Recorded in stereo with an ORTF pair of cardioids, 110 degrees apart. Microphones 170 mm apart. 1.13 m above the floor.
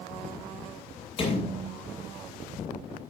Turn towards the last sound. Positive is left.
turn(degrees=35)